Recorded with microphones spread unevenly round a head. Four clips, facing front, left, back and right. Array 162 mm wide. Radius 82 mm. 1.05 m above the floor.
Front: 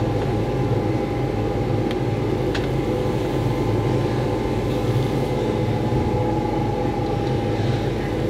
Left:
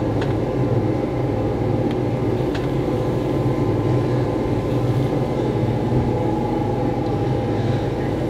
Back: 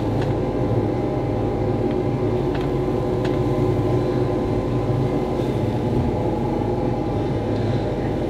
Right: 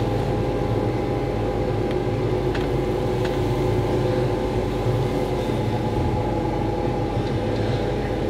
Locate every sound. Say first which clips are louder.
0.0 s a machine running: left 2 dB, even; 140° left, 2.5 m